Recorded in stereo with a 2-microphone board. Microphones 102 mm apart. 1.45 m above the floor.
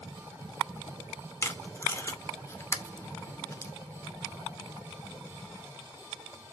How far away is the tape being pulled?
About 0.9 m.